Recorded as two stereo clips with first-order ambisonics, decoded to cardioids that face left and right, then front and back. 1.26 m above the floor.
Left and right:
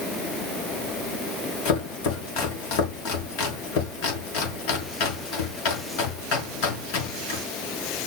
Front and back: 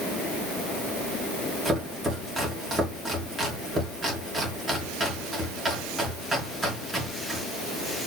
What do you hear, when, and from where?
1.6 s chopping: 95° left, 5 m